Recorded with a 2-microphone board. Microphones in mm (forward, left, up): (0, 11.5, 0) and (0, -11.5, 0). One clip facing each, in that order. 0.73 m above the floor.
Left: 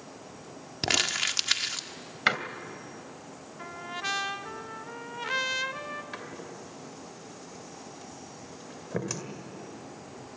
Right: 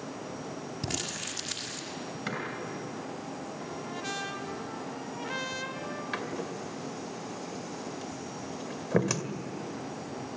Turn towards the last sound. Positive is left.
turn(degrees=-25)  # may be behind; listen again after turning